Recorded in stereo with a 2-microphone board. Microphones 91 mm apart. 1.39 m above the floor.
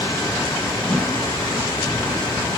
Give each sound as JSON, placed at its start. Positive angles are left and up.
{"t": 0.9, "sound": "a whoosh", "side_deg": 5, "distance_m": 1.1}